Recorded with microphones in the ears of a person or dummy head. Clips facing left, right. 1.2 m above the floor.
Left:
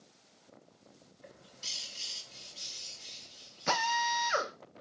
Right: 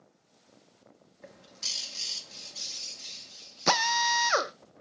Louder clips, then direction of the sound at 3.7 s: Right 4 dB; 70° right (ahead or behind).